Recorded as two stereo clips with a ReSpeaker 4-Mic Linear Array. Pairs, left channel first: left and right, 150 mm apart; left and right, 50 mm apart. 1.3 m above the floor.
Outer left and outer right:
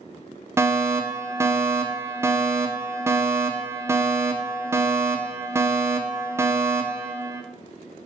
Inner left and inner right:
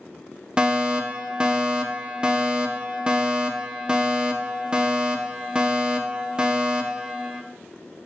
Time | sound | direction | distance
0.6 | a fire alarm | 15° right (ahead or behind) | 1.7 m